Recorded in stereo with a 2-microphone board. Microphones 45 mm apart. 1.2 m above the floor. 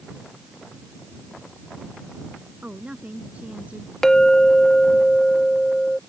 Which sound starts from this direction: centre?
A clink, at 4.0 s.